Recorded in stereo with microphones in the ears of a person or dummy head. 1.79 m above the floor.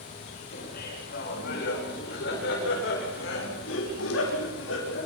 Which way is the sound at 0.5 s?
60° left (ahead or behind).